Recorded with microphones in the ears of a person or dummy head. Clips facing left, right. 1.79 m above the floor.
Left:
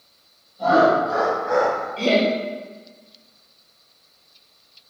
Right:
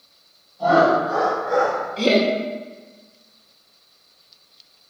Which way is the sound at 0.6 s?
25° left (ahead or behind).